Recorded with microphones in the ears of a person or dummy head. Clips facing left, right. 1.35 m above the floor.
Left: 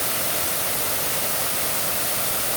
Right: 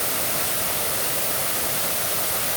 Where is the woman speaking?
I don't hear a woman speaking.